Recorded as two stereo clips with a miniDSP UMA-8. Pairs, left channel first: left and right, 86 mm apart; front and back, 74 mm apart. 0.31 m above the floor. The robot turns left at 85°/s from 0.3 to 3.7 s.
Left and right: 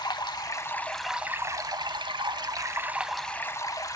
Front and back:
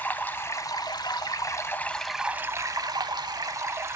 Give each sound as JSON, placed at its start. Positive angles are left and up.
{"t": 0.0, "sound": "running water", "azimuth_deg": 60, "distance_m": 0.8}